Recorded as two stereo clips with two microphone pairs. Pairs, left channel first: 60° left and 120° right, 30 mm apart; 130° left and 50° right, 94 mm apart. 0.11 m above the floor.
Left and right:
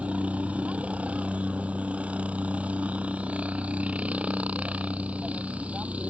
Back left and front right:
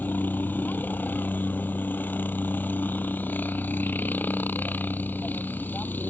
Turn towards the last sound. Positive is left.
turn(degrees=-160)